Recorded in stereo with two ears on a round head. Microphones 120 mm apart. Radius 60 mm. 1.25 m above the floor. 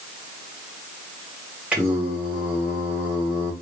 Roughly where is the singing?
Centre.